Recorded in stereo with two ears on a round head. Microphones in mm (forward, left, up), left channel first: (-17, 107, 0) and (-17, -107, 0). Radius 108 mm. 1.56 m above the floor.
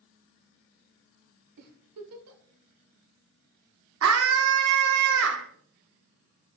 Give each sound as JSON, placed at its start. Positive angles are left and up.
{"t": 1.6, "sound": "a giggle", "side_deg": -70, "distance_m": 1.2}
{"t": 4.0, "sound": "a scream", "side_deg": -60, "distance_m": 0.5}